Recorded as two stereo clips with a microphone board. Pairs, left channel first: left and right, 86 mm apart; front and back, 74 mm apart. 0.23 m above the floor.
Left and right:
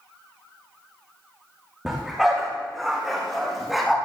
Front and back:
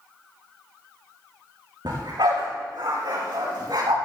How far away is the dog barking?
About 7.5 m.